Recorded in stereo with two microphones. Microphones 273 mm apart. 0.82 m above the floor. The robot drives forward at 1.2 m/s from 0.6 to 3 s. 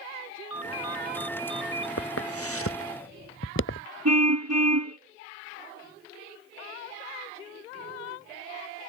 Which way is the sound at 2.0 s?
60° left (ahead or behind).